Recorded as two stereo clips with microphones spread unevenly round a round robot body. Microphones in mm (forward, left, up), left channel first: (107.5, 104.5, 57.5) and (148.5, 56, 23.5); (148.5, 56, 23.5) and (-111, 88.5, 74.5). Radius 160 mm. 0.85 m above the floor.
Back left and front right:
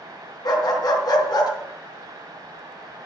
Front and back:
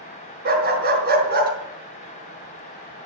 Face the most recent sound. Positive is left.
turn(degrees=120)